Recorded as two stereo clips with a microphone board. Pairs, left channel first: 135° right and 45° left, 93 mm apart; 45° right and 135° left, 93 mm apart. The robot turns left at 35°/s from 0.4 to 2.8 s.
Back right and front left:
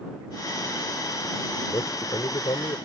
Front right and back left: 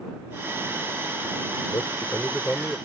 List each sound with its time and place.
1.7 s a man speaking: 95° right; by 2.8 s 130° right